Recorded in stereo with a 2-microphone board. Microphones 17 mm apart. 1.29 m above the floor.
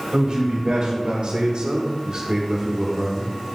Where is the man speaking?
80° right, 2.5 m; by 3.4 s 10° left (ahead or behind), 1.2 m.